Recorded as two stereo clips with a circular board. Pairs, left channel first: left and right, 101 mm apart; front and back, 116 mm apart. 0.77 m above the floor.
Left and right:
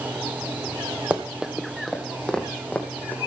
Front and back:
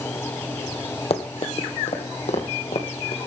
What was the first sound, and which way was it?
Running footsteps, 15° right.